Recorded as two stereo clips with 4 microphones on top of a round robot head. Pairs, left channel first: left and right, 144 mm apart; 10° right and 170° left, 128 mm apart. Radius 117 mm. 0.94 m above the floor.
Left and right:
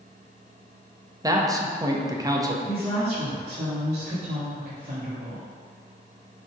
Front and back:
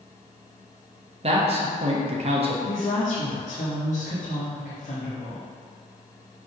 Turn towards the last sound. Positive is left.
turn(degrees=-40)